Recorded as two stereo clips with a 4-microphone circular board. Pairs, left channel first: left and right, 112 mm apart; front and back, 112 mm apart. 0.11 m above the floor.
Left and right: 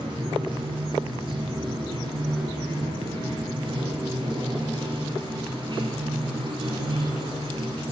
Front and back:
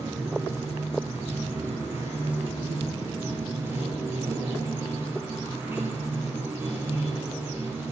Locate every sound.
0.0 s running water: 115° right, 1.3 m